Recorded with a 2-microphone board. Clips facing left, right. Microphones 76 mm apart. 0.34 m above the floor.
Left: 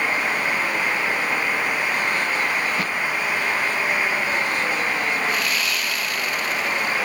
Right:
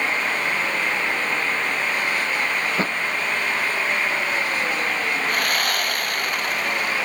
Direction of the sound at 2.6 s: 35° right (ahead or behind).